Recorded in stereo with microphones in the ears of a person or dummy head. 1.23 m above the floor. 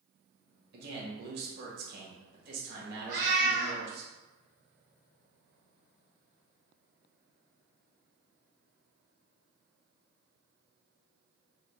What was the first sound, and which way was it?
A man speaking, 55° right (ahead or behind).